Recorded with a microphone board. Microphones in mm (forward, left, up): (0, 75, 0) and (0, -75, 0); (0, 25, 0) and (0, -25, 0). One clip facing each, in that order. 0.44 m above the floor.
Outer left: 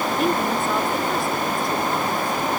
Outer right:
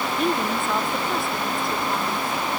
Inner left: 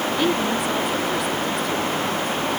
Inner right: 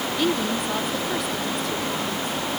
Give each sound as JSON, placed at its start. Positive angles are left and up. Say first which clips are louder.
{"t": 0.2, "sound": "a woman speaking", "louder": "outer left 1 dB, inner left 1 dB", "side_deg": 0}